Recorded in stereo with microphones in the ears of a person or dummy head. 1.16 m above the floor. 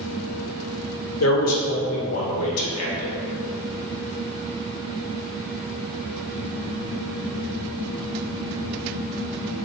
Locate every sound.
1.2 s a man speaking: 75° left (ahead or behind), 1.2 m